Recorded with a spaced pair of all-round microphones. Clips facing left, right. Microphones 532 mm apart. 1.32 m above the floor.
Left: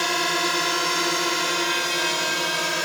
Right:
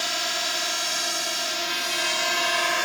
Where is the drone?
85° left; by 2.9 s 55° left (ahead or behind).